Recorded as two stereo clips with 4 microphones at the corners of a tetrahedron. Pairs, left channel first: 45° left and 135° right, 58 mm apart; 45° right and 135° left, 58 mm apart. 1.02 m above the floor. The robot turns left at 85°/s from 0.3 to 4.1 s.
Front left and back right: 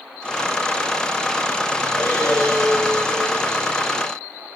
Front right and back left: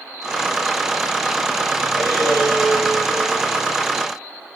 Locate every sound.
2.0 s breathing: 60° left, 5.5 m; by 3.5 s 75° right, 5.5 m